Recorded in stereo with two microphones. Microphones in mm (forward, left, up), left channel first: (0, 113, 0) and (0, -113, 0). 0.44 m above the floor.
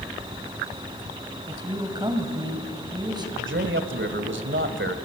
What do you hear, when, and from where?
1.5 s a woman speaking: 20° right (ahead or behind), 2.5 m
3.4 s a man speaking: 65° right (ahead or behind), 1.8 m